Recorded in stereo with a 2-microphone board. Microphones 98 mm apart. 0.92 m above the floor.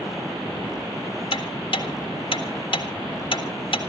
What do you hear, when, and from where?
1.3 s ticking: 55° left (ahead or behind), 1.7 m